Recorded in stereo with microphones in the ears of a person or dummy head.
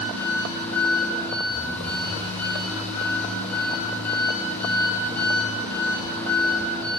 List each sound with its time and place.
0.0 s an engine running: 5° left (ahead or behind), 6 m